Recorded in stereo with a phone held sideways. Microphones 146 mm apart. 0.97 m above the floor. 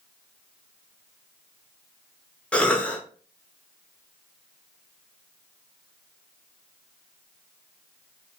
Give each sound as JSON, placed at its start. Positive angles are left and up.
{"t": 2.5, "sound": "a cough", "side_deg": 10, "distance_m": 0.8}